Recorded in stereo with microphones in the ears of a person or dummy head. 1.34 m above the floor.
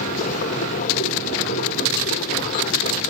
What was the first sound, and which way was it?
A machine running, 40° left (ahead or behind).